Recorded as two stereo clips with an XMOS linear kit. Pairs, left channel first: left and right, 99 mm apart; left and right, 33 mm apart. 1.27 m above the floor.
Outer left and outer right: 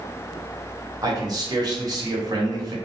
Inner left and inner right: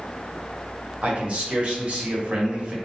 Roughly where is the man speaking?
Right.